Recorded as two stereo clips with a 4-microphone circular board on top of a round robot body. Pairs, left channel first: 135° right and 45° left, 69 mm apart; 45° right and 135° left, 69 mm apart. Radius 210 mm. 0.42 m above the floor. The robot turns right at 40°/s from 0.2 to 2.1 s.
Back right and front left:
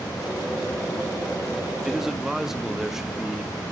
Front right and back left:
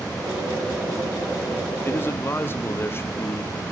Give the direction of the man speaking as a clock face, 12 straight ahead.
1 o'clock.